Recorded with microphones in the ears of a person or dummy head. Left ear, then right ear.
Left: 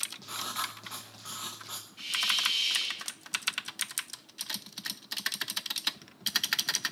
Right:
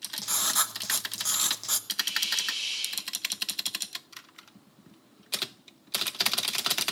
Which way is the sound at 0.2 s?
60° right (ahead or behind).